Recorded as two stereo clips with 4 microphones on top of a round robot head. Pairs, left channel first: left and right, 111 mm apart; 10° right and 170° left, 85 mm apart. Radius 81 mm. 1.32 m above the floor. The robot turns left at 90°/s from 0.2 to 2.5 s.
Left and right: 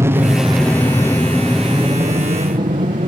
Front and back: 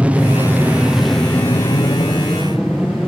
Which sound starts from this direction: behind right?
An aircraft, at 0.0 s.